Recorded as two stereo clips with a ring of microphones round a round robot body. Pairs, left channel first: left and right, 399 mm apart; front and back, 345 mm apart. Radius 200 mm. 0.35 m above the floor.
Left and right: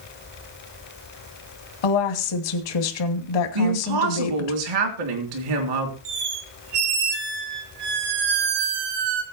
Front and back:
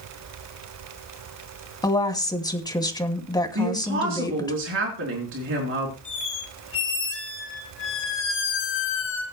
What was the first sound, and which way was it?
A woman speaking, 80° left.